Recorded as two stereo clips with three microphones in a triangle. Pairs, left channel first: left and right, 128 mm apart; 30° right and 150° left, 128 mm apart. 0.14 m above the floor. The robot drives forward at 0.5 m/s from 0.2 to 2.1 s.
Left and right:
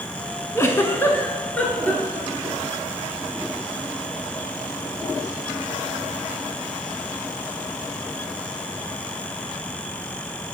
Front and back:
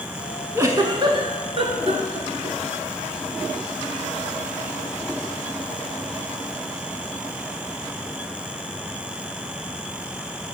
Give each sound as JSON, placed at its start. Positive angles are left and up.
{"t": 0.6, "sound": "a giggle", "azimuth_deg": 120, "distance_m": 0.5}